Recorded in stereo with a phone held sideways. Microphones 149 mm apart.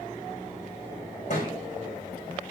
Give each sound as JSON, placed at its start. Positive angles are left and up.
{"t": 1.3, "sound": "a thud", "side_deg": 50, "distance_m": 4.5}